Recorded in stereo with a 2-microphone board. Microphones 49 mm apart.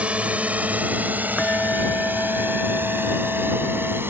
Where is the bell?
35° left (ahead or behind).